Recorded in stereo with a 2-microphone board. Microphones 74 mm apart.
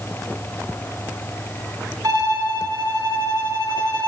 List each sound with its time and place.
2.0 s a violin: 55° right (ahead or behind), 4 m